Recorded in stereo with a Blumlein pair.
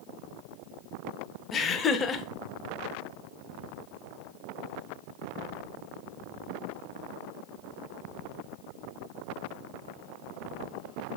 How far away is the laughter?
About 0.6 m.